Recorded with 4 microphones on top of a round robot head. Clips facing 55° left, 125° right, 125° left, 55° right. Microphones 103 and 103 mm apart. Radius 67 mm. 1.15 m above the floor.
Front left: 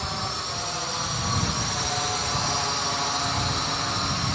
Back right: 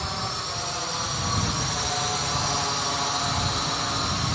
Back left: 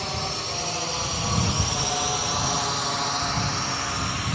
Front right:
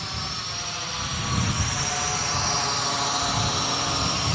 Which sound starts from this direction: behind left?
A drone, at 0.0 s.